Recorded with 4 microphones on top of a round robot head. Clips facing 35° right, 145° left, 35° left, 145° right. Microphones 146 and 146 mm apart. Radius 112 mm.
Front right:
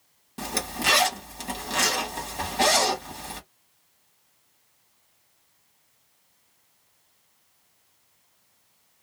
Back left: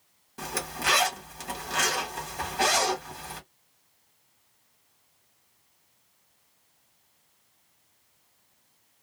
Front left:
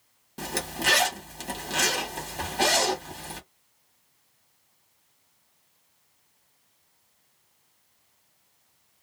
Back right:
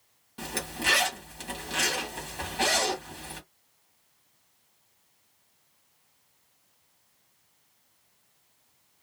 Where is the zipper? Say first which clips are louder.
Front right 3 dB, front left 3 dB; 15° left, 1.4 m.